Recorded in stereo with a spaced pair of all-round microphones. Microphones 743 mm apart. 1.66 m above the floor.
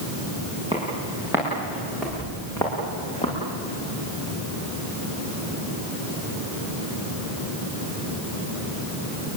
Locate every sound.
0.7 s footsteps: 5° right (ahead or behind), 9.5 m; by 3.4 s 10° left (ahead or behind), 7 m